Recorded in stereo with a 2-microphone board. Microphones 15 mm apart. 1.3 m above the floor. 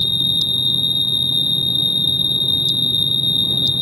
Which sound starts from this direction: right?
An insect, at 0.0 s.